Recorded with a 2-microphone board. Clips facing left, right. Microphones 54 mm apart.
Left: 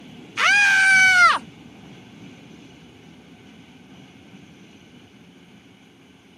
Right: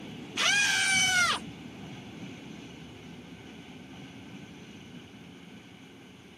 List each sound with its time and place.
0.4 s a scream: 65° left (ahead or behind); by 1.5 s 85° left